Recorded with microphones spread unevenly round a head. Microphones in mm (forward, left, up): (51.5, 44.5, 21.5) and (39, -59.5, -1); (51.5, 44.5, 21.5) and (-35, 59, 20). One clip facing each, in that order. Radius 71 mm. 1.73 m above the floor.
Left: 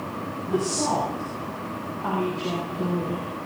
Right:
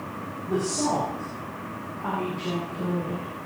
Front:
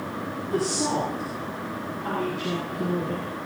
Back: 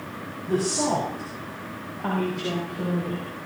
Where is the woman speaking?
170° right, 5.5 m; by 3.3 s 165° left, 8.5 m.